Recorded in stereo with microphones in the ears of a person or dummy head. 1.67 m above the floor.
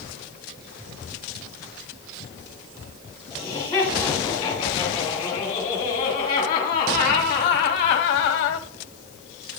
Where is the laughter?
20° left (ahead or behind), 3.5 m; by 8.7 s 65° left (ahead or behind), 0.7 m.